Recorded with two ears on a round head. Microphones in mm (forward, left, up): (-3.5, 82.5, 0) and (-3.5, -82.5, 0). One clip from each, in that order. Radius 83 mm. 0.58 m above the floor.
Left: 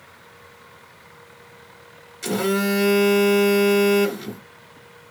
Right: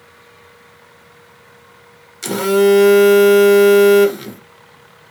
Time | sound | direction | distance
2.2 | a phone buzzing | 30° right (ahead or behind) | 0.6 m